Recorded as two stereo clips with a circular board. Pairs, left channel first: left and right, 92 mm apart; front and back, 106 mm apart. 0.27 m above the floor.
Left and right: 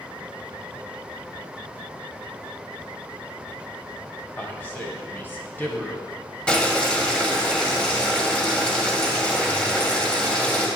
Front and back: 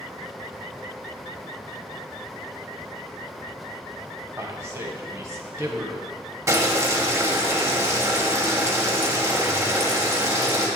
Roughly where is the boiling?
Behind left.